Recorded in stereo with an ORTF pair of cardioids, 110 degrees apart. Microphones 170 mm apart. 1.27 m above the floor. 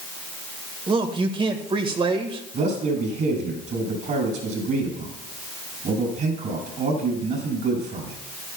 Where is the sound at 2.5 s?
50° right, 7 m.